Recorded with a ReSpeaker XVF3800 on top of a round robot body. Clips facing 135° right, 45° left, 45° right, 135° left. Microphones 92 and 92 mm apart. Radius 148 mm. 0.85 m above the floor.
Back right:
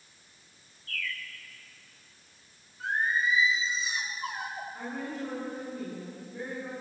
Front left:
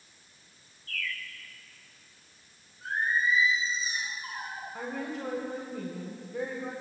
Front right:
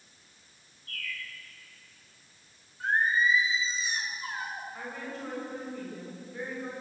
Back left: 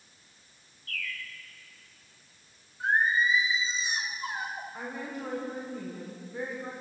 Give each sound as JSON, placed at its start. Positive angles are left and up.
{"t": 0.9, "sound": "a bird", "azimuth_deg": 135, "distance_m": 1.9}
{"t": 2.8, "sound": "singing", "azimuth_deg": -155, "distance_m": 3.0}
{"t": 4.7, "sound": "a woman speaking", "azimuth_deg": 60, "distance_m": 5.5}